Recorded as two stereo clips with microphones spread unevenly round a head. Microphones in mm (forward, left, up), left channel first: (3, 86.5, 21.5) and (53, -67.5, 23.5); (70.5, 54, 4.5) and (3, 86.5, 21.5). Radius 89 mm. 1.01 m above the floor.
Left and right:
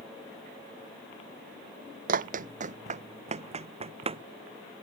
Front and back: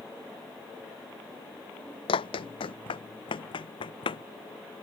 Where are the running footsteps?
40° right; by 4.2 s 15° right.